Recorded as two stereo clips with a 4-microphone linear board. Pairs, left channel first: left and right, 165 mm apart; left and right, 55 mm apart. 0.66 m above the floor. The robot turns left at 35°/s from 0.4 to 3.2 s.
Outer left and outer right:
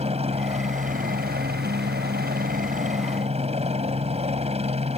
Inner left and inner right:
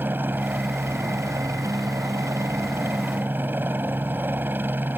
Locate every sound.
0.0 s a helicopter: 40° right; by 5.0 s 140° right